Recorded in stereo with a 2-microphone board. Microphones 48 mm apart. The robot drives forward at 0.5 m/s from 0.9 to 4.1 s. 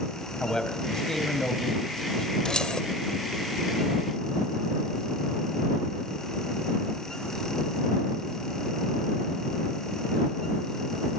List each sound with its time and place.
0.4 s a man speaking: 15° left (ahead or behind), 3.5 m
2.5 s keys jangling: 15° left (ahead or behind), 2 m